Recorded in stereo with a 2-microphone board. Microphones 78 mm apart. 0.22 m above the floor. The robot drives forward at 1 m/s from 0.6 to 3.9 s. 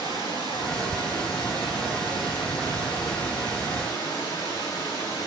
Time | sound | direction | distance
0.0 | running water | 85° left | 7.5 m